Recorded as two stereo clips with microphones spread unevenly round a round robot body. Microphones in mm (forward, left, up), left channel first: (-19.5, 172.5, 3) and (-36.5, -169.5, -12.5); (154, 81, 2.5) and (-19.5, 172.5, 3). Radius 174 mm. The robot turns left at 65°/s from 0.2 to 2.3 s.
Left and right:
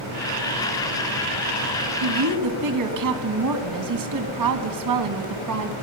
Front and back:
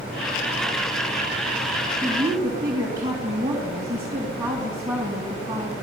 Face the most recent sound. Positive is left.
turn(degrees=-125)